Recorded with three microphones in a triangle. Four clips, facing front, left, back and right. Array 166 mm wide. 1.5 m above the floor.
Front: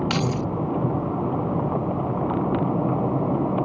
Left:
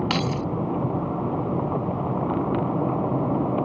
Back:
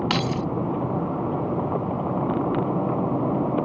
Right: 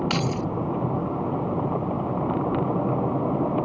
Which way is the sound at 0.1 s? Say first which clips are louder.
Left 1 dB, even; 150° left.